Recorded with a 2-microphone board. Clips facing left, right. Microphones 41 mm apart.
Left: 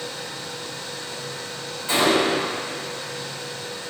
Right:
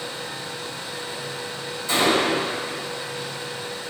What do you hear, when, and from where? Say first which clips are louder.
1.9 s a gunshot: left 1 dB; 30° left (ahead or behind), 4 m